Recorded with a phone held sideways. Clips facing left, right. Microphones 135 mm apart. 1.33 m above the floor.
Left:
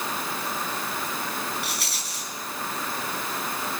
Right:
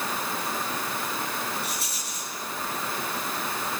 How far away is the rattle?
About 5.5 m.